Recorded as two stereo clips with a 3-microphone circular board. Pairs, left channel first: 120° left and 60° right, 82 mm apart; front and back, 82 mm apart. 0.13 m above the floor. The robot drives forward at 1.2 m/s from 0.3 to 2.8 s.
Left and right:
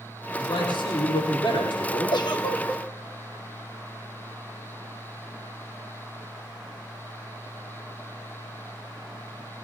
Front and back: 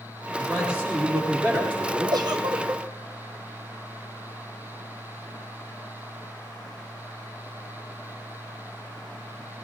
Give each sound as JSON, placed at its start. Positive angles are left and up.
{"t": 0.4, "sound": "a man speaking", "azimuth_deg": 100, "distance_m": 7.5}
{"t": 2.1, "sound": "a giggle", "azimuth_deg": 145, "distance_m": 1.8}